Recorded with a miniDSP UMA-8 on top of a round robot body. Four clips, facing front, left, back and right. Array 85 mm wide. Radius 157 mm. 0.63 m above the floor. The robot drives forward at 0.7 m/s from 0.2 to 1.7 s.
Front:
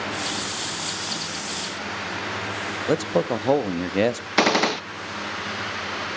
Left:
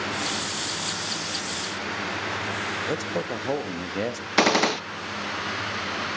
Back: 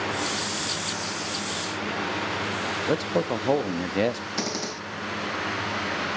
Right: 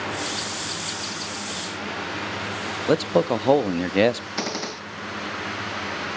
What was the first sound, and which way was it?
A man speaking, 75° right.